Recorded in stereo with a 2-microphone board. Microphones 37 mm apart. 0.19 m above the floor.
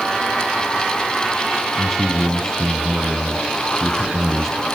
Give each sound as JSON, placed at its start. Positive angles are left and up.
{"t": 1.8, "sound": "a man speaking", "side_deg": -10, "distance_m": 2.0}